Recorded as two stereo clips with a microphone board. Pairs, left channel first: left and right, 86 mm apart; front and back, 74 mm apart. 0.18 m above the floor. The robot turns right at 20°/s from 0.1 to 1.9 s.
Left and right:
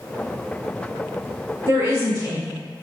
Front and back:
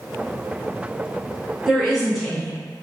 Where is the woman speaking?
100° right, 1.5 m; by 2.6 s 95° right, 1.5 m.